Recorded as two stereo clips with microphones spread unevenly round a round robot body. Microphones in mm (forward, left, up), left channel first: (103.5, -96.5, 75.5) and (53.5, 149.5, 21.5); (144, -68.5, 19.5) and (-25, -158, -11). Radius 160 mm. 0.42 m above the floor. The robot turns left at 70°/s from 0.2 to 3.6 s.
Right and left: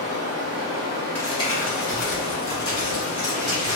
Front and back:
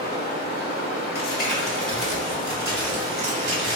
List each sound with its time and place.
0.0 s running water: 115° left, 1.4 m; by 3.8 s 125° right, 1.4 m
1.1 s crumpling: 15° left, 1.9 m; by 3.8 s 155° right, 1.9 m